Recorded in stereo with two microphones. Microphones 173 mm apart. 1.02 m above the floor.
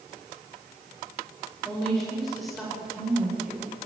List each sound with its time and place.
1.6 s a woman speaking: 5° left (ahead or behind), 5 m; by 3.8 s 5° right (ahead or behind), 4 m